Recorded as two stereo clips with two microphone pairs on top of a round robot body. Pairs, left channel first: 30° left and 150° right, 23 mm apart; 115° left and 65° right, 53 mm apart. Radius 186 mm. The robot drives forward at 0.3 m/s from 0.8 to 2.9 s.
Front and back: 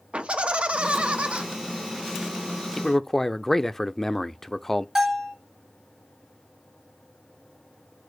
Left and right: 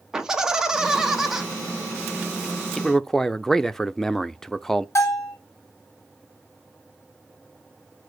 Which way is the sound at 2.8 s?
70° left.